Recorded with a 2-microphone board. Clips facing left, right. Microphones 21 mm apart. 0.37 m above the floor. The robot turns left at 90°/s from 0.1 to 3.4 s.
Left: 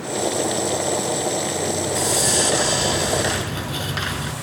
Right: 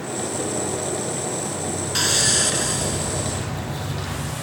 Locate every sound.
1.9 s sawing: 135° right, 2.5 m; by 4.3 s 95° left, 2.5 m